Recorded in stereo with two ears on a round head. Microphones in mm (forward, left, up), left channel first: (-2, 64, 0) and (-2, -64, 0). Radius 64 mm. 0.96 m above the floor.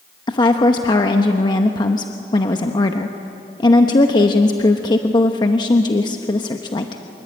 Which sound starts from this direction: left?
A woman speaking, at 0.3 s.